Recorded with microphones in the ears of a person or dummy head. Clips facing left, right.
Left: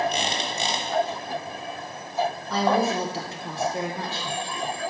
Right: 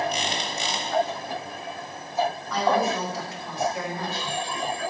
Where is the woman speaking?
25° left (ahead or behind), 0.6 m.